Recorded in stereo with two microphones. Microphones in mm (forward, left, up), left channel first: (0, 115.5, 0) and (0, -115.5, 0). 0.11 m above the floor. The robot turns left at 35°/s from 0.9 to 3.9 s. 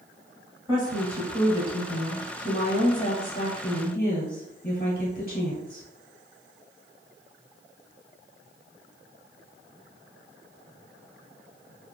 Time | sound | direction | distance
0.7 | a woman speaking | 155° right | 1.3 m